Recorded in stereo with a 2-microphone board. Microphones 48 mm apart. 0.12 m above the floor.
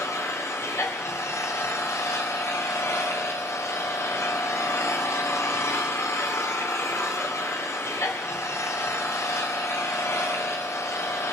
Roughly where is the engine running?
Left.